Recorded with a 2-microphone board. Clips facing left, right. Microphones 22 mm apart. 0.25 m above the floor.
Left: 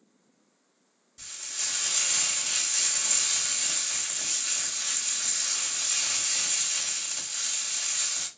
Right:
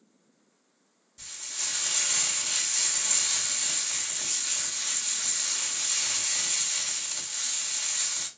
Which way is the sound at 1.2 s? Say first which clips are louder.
Left 1 dB; 10° left (ahead or behind).